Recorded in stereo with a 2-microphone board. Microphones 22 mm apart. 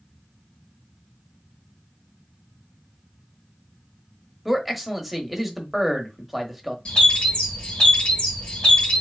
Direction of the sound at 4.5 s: 5° right (ahead or behind).